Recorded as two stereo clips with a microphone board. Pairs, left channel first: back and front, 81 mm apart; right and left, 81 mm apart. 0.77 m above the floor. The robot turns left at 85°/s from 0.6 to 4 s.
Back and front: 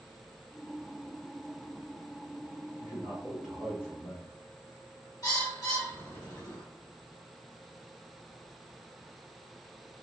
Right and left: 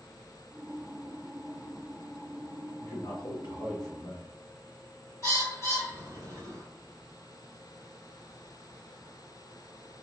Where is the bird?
145° right, 1.7 m.